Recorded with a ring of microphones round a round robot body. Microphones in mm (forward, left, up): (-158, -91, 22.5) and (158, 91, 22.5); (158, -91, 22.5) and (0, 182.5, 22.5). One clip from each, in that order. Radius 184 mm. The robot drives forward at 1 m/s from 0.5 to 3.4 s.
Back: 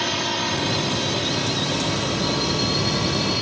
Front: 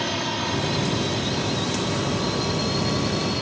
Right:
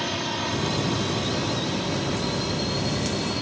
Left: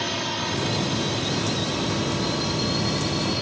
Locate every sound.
0.0 s a drone: 175° left; by 3.4 s straight behind